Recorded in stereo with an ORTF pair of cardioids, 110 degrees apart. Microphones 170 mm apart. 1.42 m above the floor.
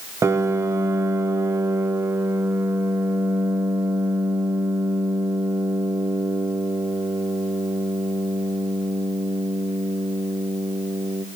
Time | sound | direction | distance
0.2 | a piano | 15° right | 0.6 m